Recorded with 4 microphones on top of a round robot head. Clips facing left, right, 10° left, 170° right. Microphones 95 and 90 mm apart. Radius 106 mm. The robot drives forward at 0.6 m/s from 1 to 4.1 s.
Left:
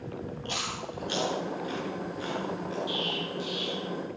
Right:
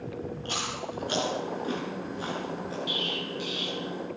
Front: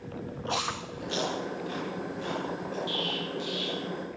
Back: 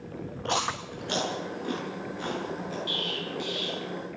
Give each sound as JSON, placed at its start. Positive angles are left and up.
{"t": 0.5, "sound": "chewing", "azimuth_deg": -145, "distance_m": 8.0}
{"t": 2.9, "sound": "an explosion", "azimuth_deg": -125, "distance_m": 7.0}